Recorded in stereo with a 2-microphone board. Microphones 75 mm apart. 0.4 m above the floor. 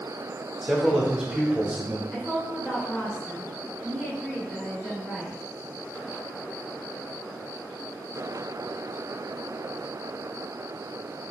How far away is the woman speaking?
About 1.0 m.